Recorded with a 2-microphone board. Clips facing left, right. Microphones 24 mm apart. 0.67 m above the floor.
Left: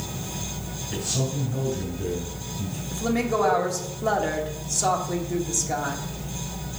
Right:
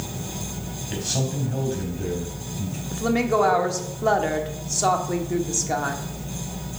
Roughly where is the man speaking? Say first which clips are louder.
Right 1 dB; right.